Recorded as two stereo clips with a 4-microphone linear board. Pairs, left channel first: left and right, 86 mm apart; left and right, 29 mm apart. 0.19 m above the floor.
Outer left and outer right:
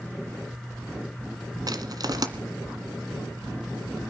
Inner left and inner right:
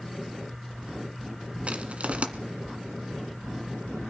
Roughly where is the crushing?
Right.